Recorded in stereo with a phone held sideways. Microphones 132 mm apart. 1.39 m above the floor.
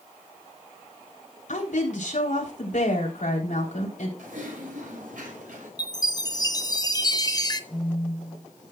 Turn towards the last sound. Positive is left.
turn(degrees=20)  # may be behind; listen again after turning